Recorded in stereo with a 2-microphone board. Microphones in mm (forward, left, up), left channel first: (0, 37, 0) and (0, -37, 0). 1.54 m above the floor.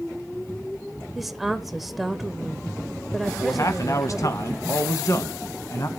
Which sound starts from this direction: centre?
A woman speaking, at 1.1 s.